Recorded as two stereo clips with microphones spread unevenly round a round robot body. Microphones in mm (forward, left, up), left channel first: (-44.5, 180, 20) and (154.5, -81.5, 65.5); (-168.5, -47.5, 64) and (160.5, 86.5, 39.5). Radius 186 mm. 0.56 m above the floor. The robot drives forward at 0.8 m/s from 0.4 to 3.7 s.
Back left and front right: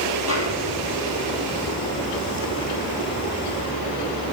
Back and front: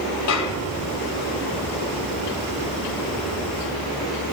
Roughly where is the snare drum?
Right.